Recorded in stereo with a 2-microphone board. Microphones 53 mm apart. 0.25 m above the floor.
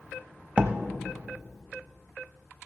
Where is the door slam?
20° right (ahead or behind), 0.8 m.